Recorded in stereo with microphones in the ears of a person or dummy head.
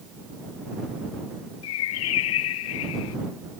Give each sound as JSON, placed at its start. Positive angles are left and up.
{"t": 1.6, "sound": "a bird", "side_deg": 70}